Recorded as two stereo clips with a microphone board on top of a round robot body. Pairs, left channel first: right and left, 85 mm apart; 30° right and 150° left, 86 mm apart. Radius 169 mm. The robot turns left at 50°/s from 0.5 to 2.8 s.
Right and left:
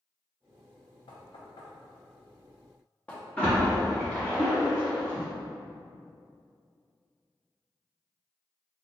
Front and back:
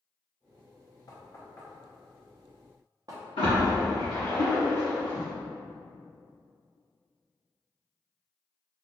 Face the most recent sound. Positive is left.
turn(degrees=-20)